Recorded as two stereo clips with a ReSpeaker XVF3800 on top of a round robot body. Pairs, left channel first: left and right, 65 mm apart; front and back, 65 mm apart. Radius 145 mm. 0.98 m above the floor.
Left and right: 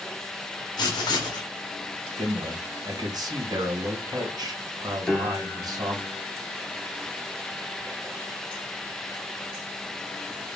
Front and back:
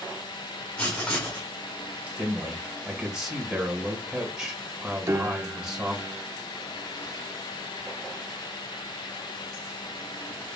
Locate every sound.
0.8 s writing: 75° left, 0.8 m
2.2 s a man speaking: 105° right, 1.5 m
5.1 s a piano: 170° left, 1.1 m